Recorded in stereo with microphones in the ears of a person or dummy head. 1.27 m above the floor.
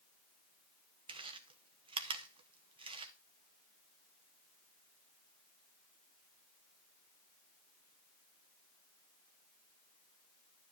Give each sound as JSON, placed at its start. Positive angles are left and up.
{"t": 1.1, "sound": "chewing", "side_deg": -25, "distance_m": 0.6}